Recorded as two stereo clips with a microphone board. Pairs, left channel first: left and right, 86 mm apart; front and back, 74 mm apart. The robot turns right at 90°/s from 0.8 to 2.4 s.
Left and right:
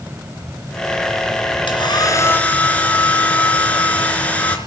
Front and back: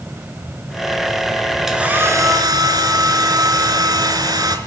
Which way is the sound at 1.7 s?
95° left.